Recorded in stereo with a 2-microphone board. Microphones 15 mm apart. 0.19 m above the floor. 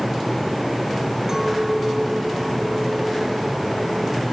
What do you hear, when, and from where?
1.3 s a clink: 35° right (ahead or behind), 2 m